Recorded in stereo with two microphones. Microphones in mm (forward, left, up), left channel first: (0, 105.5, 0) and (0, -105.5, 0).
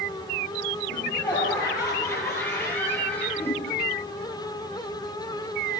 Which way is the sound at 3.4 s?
10° left (ahead or behind).